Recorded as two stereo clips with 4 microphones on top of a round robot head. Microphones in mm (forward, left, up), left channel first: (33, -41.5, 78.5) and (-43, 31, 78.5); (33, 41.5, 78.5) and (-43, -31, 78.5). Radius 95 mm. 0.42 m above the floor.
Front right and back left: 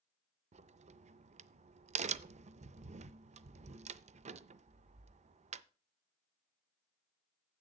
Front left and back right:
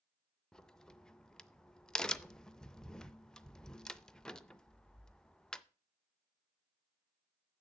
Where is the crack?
130° left, 0.5 m.